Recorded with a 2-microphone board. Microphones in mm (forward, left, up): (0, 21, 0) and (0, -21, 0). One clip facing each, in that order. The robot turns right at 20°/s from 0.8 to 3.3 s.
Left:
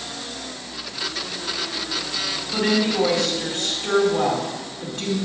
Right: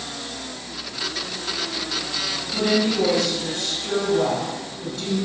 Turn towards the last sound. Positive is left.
turn(degrees=40)  # may be behind; listen again after turning